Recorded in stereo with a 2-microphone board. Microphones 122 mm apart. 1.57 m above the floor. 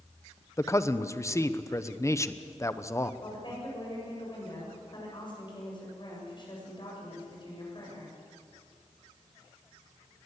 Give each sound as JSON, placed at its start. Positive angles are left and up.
{"t": 0.6, "sound": "a man speaking", "side_deg": 25, "distance_m": 0.9}
{"t": 3.2, "sound": "a woman speaking", "side_deg": 40, "distance_m": 8.0}